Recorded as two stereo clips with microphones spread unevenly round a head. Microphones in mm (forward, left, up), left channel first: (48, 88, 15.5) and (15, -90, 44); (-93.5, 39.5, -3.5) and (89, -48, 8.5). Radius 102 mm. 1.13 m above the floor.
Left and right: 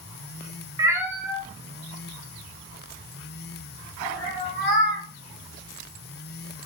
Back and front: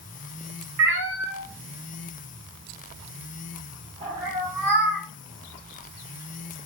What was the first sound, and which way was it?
A cat meowing, 40° right.